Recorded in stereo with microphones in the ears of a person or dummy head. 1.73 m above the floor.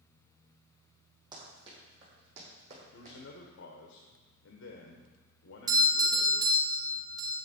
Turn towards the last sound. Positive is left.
turn(degrees=-20)  # may be behind; listen again after turning